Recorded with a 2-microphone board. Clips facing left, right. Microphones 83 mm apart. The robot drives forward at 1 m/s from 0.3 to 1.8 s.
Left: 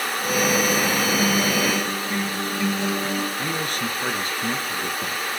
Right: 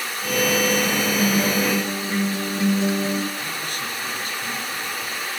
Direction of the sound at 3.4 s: 55° left (ahead or behind).